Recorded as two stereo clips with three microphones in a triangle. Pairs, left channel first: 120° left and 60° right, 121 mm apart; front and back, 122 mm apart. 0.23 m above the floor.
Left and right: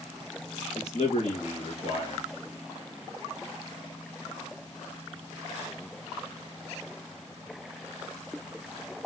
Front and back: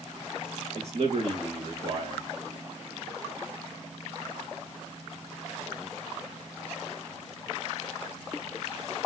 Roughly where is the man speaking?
Behind left.